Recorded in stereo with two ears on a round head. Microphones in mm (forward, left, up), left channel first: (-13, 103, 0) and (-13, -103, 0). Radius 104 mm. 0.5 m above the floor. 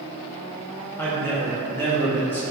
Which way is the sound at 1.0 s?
10° left (ahead or behind).